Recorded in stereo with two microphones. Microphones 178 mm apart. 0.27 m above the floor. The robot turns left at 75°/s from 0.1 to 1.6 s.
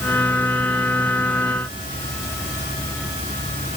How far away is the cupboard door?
I don't hear a cupboard door.